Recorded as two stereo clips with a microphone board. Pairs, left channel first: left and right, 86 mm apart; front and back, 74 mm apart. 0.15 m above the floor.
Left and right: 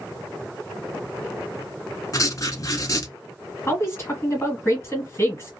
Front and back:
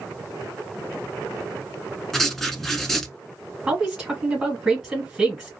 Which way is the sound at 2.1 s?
85° left.